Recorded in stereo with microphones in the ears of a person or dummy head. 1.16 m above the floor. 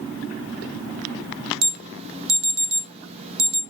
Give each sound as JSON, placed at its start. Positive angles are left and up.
{"t": 1.6, "sound": "an alarm", "side_deg": -35, "distance_m": 1.1}